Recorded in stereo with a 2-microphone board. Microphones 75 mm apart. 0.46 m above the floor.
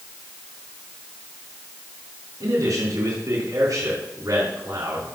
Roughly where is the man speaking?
Right.